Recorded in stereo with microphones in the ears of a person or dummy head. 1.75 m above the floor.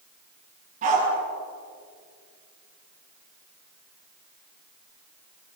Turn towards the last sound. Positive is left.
turn(degrees=-50)  # may be behind; listen again after turning